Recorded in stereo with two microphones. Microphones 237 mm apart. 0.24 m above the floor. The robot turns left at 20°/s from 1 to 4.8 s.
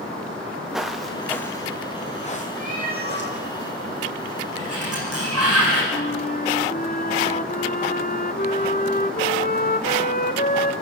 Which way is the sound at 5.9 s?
40° left (ahead or behind).